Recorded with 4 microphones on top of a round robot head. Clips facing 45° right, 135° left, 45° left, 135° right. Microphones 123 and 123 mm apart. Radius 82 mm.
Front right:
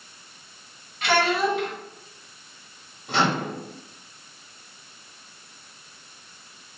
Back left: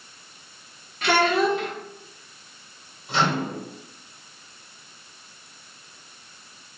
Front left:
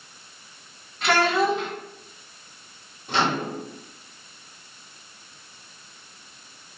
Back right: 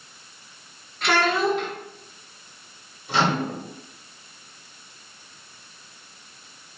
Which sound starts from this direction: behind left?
A child speaking, at 1.0 s.